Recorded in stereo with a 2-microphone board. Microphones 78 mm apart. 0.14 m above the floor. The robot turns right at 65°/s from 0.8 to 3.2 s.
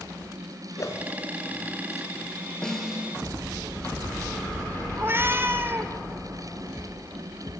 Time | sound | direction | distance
0.8 | a whoosh | 45° left (ahead or behind) | 0.6 m
2.6 | a snare drum | 170° left | 1.8 m
5.0 | a cat meowing | 30° right (ahead or behind) | 0.8 m